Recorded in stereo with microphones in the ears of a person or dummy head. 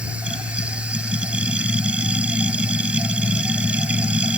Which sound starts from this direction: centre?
A machine running, at 0.0 s.